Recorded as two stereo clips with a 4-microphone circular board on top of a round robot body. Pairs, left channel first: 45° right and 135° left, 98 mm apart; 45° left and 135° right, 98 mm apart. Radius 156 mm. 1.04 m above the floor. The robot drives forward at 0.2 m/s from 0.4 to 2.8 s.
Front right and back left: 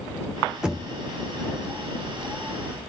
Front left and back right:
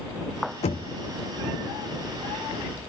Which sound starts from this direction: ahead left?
Knocking, at 0.6 s.